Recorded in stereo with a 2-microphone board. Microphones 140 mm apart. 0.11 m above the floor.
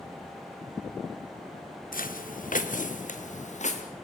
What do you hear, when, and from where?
1.9 s footsteps: 80° left, 2 m; by 3.8 s 55° left (ahead or behind), 3.5 m